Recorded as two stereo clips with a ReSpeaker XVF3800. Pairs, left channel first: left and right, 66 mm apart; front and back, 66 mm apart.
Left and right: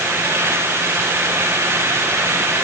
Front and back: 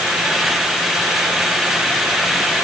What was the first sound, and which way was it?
Only background noise.